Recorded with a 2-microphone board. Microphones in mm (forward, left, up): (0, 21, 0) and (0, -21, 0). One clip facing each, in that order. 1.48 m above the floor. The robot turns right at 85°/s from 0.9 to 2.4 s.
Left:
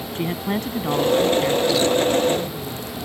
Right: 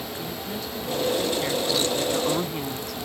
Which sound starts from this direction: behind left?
A woman speaking, at 0.1 s.